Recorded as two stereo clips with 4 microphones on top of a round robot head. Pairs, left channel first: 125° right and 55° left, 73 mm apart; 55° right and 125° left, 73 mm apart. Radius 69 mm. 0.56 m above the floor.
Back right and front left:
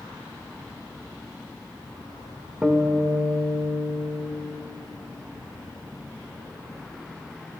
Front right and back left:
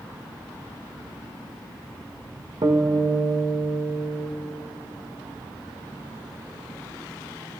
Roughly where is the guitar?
Behind left.